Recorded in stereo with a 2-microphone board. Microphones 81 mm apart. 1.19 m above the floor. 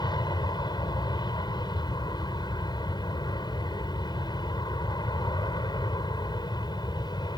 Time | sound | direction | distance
0.0 | an aircraft | 60° left (ahead or behind) | ?